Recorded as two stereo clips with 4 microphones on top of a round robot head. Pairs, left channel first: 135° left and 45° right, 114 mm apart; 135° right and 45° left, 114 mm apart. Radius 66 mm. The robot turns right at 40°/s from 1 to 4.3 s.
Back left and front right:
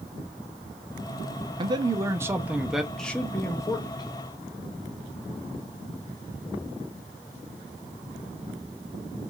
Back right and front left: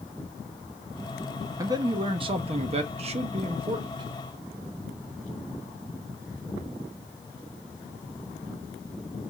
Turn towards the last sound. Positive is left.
turn(degrees=100)